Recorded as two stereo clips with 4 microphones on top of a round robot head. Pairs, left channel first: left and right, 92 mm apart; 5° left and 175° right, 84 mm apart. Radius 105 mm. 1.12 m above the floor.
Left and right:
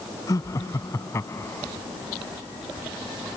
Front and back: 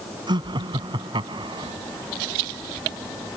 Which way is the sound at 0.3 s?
150° left.